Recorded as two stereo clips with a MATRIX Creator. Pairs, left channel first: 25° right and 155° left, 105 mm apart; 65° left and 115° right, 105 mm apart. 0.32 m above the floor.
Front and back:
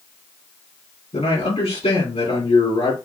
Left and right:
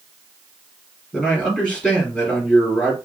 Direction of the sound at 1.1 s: 10° right.